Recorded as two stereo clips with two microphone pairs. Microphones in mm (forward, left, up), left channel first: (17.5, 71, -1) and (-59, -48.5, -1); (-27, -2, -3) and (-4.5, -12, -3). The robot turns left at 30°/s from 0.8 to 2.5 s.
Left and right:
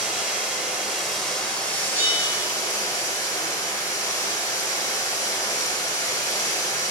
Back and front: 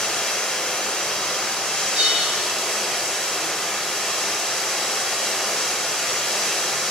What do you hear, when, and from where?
0.0 s running water: 155° left, 0.8 m; by 6.9 s 105° left, 0.8 m
1.9 s a bell: 50° right, 1.0 m; by 2.5 s 65° right, 1.0 m